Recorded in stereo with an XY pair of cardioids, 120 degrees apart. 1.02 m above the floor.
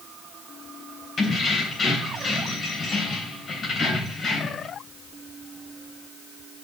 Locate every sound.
1.2 s keys jangling: 45° left, 3 m